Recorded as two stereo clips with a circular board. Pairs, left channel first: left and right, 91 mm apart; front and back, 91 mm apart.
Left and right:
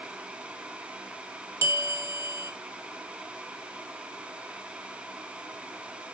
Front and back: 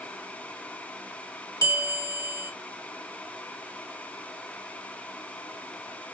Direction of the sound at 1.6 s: 40° right.